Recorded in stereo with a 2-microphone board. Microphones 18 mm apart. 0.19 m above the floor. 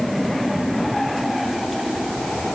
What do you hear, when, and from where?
Only background noise.